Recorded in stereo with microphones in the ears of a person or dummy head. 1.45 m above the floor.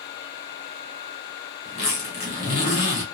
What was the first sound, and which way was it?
A zipper, 40° left (ahead or behind).